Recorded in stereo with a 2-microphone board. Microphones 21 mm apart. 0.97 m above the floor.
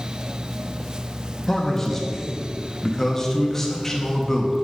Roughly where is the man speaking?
Centre.